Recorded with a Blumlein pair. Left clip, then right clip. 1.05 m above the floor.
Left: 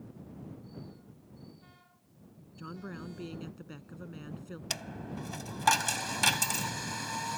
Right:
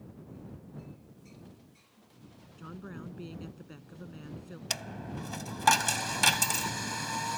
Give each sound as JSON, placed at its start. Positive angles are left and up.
{"t": 2.6, "sound": "a woman speaking", "azimuth_deg": 10}
{"t": 4.7, "sound": "a dropped coin", "azimuth_deg": -5}